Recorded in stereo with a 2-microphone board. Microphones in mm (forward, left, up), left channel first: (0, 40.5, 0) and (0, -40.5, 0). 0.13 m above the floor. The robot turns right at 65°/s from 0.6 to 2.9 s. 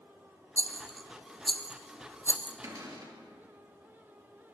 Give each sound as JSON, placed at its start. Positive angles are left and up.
{"t": 0.6, "sound": "a rattle", "side_deg": -40, "distance_m": 0.7}
{"t": 2.6, "sound": "a cupboard door", "side_deg": -40, "distance_m": 2.5}